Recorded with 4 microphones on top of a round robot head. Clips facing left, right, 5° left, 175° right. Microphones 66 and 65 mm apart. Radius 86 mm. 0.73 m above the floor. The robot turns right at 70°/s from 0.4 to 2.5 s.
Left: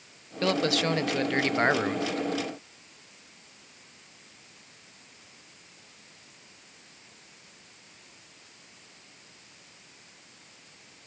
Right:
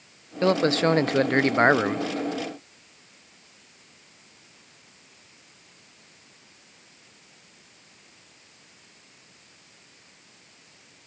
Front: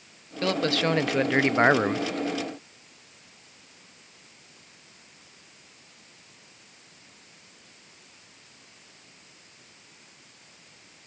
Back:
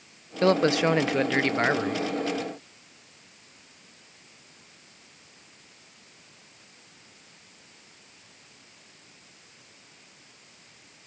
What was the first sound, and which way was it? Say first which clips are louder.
A man speaking: right 5 dB, back 4 dB; 140° right.